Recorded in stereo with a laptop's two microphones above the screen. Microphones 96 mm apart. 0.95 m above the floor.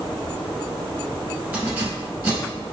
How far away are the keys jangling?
About 1.3 m.